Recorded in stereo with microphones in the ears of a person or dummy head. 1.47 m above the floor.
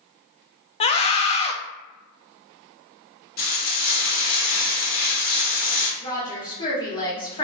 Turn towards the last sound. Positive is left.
turn(degrees=25)  # may be behind; listen again after turning